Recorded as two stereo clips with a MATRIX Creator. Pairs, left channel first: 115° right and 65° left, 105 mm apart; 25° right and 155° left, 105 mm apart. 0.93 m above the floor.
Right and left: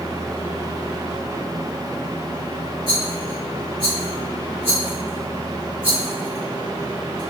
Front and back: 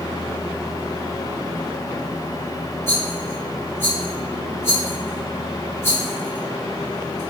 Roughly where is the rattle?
Ahead left.